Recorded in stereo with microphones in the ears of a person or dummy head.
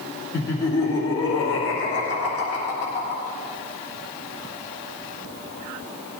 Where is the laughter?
10° left (ahead or behind), 3 m; by 3.2 s 35° left (ahead or behind), 3.5 m.